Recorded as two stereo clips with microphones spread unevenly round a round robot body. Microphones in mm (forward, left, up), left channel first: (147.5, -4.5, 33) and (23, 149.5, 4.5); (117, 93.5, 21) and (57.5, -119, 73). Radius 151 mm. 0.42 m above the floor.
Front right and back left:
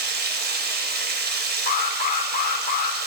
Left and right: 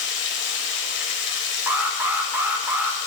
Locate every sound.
0.0 s running water: 100° left, 1.0 m
1.7 s an alarm: 15° right, 1.1 m